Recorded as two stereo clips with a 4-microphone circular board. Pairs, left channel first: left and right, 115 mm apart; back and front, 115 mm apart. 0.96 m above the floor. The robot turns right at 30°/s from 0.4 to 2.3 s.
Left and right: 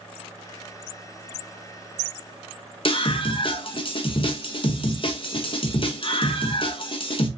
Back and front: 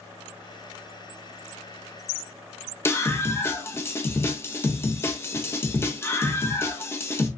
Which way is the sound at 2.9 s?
115° left.